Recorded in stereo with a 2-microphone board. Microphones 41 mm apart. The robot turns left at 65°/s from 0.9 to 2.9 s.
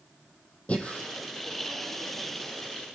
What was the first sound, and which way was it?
Breathing, 30° left (ahead or behind).